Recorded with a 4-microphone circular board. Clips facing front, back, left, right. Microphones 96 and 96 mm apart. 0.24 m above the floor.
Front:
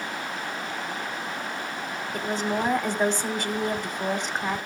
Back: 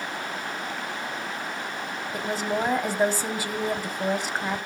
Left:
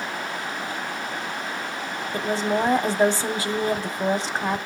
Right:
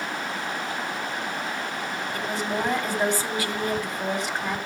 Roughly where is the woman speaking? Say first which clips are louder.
Even, left 6 dB; left.